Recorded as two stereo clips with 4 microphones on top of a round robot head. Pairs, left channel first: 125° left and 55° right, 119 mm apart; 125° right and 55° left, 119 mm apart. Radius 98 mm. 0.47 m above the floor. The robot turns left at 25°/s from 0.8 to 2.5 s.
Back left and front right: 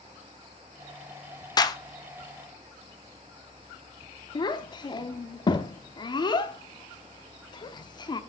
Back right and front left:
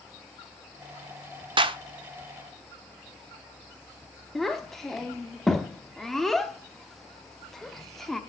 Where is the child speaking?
150° left, 0.9 m.